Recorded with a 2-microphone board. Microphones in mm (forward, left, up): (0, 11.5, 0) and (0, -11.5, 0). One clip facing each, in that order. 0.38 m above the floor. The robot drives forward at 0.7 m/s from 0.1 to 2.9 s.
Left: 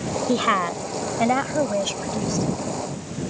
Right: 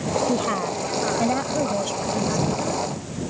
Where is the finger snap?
I don't hear a finger snap.